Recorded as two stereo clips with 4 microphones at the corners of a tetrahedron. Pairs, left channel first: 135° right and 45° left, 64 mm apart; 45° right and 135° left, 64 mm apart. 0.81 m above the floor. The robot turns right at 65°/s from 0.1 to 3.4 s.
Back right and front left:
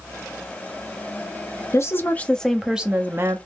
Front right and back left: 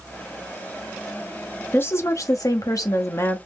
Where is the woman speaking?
100° right, 0.9 m; by 3.4 s 5° left, 0.9 m.